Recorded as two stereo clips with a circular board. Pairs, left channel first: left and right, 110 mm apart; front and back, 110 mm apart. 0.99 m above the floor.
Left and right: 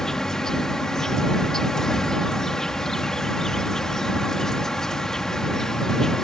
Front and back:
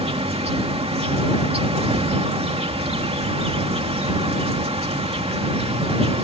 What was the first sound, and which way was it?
An insect, 175° left.